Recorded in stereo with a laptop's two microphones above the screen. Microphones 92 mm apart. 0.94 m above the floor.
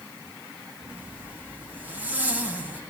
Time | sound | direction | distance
0.9 | a zipper | 20° right (ahead or behind) | 2.5 m